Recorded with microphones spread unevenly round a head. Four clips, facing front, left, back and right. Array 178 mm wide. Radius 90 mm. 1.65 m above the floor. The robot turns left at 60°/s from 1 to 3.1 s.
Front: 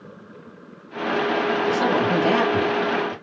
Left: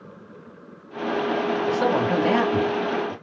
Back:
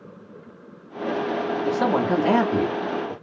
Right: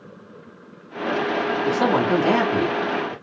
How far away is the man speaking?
About 1.0 m.